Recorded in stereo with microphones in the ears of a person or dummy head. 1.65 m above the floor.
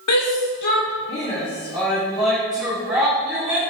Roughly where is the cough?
No cough in this recording.